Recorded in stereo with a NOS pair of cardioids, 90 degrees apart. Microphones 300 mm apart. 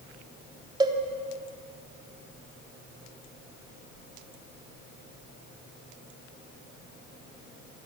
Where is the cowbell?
15° right, 3 m.